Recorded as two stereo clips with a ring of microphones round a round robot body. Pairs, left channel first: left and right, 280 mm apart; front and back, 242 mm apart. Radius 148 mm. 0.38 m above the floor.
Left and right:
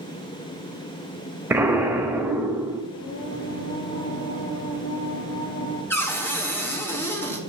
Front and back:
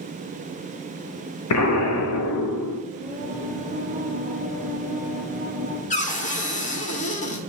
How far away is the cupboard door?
About 1.3 m.